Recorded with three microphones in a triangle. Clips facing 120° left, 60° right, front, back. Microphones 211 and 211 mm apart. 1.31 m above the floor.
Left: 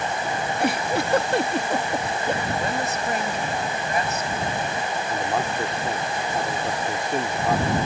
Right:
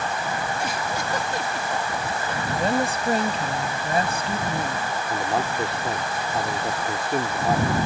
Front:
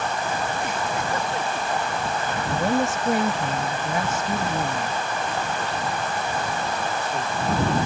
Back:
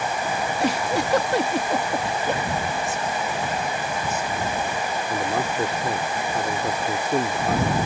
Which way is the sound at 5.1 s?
145° right.